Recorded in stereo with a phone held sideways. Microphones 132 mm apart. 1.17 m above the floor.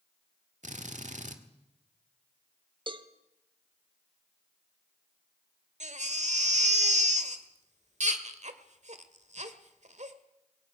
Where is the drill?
70° right (ahead or behind), 1.8 m.